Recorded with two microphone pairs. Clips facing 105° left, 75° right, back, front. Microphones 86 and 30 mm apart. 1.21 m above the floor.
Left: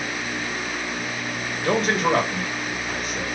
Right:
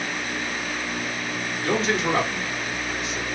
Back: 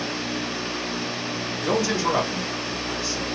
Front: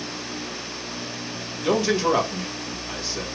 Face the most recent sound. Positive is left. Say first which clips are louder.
# left 3 dB, front 3 dB
turn(degrees=60)